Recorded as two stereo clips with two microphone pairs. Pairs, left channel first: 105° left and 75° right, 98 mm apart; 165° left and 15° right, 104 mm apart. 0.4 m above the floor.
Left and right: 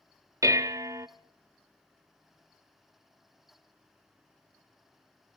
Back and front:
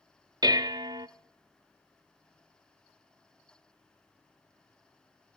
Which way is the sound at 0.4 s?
35° right.